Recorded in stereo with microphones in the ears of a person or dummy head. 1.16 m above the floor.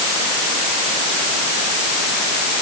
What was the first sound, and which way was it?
Only background noise.